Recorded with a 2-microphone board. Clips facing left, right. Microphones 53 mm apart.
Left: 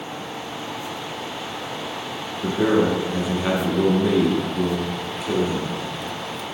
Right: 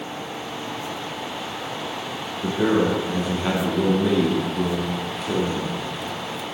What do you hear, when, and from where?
2.4 s a man speaking: 5° left (ahead or behind), 0.7 m